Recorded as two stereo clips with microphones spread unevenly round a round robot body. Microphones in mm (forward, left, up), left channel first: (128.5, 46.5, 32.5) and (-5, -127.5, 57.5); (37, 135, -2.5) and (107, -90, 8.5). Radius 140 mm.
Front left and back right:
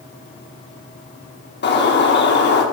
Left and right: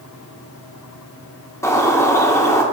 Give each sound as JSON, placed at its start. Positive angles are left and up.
{"t": 1.6, "sound": "a bird", "azimuth_deg": 30, "distance_m": 2.0}